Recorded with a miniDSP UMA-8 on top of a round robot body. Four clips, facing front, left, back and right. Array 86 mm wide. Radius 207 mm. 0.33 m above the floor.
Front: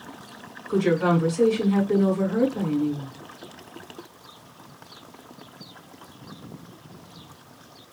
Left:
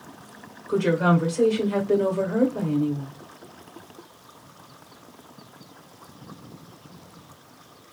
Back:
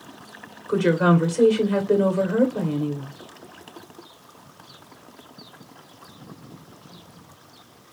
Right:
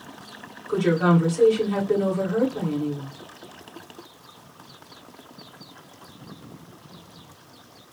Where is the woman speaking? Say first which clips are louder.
Right 1 dB, back 2 dB; 175° left, 2.5 m.